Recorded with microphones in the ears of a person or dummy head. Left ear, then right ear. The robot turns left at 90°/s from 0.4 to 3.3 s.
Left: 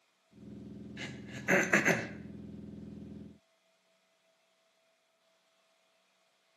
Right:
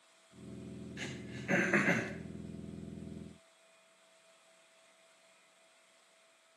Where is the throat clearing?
5° left (ahead or behind), 0.7 m; by 2.1 s 70° left (ahead or behind), 0.7 m.